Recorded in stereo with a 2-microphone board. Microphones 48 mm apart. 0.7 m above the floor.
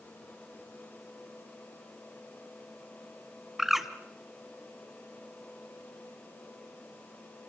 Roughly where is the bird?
Centre.